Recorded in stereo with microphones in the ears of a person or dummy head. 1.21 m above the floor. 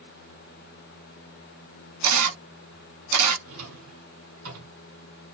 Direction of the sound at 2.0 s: 80° right.